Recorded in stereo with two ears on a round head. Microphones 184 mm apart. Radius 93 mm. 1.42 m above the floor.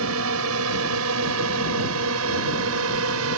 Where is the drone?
85° right; by 3.4 s 80° right.